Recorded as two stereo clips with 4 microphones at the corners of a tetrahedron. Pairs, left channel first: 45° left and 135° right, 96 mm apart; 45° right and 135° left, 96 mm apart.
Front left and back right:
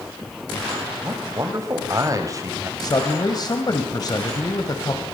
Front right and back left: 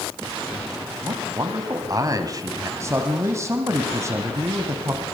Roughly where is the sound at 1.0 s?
Behind.